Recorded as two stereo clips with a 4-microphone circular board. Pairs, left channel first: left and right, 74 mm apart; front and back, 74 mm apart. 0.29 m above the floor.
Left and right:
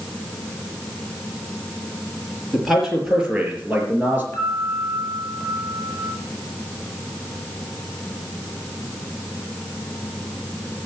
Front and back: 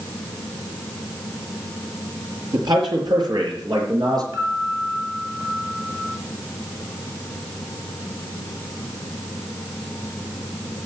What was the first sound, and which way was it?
A man speaking, straight behind.